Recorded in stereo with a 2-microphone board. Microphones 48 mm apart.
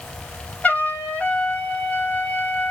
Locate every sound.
0.6 s a trumpet: 30° left (ahead or behind), 1.2 m